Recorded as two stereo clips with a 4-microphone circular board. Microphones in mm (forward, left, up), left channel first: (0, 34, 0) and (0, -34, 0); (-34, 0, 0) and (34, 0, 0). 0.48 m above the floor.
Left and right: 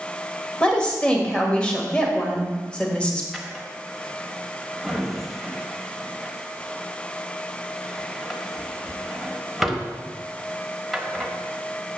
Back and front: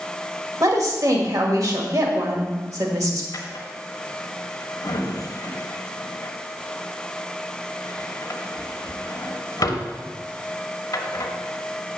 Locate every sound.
0.6 s a woman speaking: 20° left, 1.6 m
3.3 s a drawer: straight behind, 1.2 m